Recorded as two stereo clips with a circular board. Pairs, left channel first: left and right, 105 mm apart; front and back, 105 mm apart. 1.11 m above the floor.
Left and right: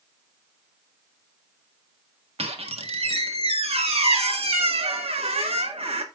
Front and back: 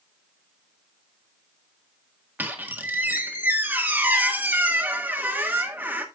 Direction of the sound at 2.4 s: 110° right.